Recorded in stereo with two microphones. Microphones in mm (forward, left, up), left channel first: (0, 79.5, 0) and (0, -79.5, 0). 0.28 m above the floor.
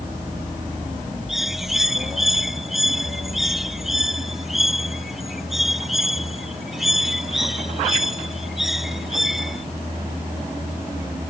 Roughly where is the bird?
Centre.